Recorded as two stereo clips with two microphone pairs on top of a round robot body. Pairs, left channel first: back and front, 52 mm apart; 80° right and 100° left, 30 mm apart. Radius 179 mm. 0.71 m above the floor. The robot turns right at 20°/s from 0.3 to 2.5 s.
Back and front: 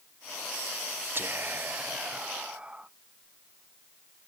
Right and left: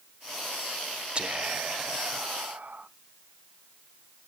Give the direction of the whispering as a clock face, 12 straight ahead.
11 o'clock.